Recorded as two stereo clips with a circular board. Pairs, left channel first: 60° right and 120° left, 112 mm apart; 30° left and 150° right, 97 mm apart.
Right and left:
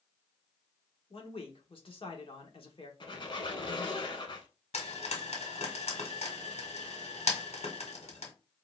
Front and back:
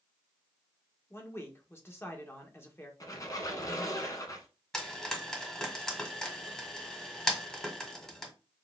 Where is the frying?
55° right, 1.7 m.